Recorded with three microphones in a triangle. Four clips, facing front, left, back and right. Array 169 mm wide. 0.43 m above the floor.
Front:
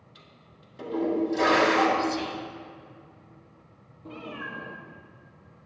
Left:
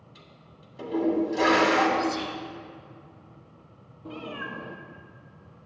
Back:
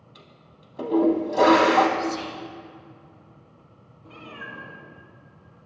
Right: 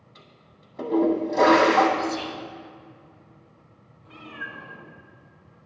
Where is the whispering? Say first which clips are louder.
Even, even; 25° right, 2.5 m.